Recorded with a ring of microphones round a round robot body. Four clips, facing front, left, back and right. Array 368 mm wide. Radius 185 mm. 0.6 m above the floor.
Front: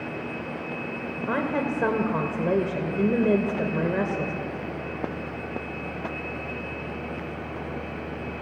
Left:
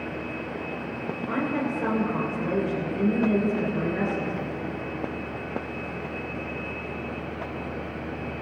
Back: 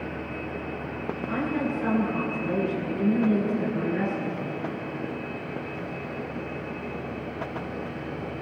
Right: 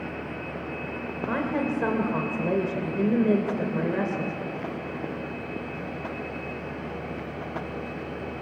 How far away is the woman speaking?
About 3 m.